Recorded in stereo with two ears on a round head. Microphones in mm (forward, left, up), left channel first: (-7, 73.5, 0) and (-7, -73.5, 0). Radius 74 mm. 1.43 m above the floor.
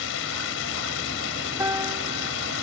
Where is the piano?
15° right (ahead or behind).